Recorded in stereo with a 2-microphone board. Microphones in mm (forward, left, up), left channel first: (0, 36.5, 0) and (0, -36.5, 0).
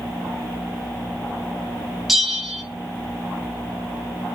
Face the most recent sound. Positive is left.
turn(degrees=0)  # may be behind; listen again after turning